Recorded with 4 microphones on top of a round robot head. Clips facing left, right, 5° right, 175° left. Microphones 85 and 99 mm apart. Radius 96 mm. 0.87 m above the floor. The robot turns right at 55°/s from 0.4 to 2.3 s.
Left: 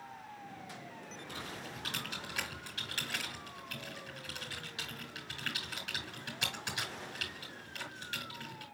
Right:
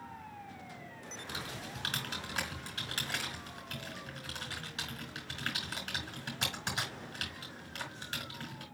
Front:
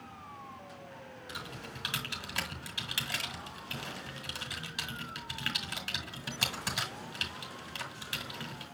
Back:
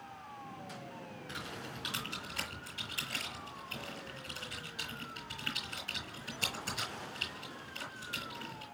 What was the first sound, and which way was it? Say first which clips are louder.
Typing on a keyboard: right 2 dB, front 1 dB; 85° right.